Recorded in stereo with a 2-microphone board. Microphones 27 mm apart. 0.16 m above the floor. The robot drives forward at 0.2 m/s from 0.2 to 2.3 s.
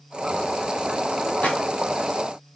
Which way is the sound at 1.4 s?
70° left (ahead or behind).